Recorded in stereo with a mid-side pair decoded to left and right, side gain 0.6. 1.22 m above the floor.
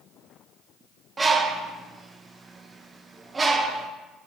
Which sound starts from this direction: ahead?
A bird, at 1.2 s.